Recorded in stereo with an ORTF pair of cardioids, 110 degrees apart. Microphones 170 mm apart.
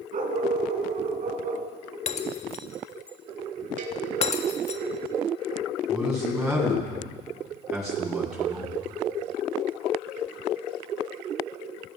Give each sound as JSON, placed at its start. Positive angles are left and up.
{"t": 0.1, "sound": "a dog barking", "azimuth_deg": -50, "distance_m": 5.0}
{"t": 2.1, "sound": "breaking glass", "azimuth_deg": 40, "distance_m": 1.6}
{"t": 3.8, "sound": "a cowbell", "azimuth_deg": -50, "distance_m": 3.5}
{"t": 5.9, "sound": "a man speaking", "azimuth_deg": -5, "distance_m": 9.0}